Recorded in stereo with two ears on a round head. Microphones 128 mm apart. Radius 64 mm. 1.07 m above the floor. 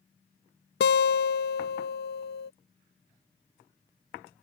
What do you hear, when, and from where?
0.8 s a guitar: 75° left (ahead or behind)